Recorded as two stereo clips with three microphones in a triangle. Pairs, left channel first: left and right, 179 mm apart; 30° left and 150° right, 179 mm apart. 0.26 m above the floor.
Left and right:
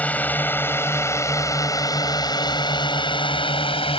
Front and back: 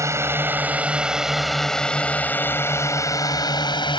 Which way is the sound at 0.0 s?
160° left.